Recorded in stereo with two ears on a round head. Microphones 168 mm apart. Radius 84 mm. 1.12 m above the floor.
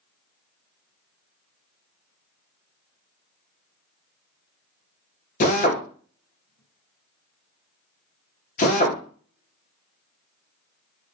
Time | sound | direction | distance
5.4 | a drill | 40° left (ahead or behind) | 0.6 m